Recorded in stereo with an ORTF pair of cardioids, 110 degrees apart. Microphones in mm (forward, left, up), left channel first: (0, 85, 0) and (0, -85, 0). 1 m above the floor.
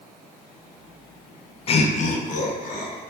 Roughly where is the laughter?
Ahead left.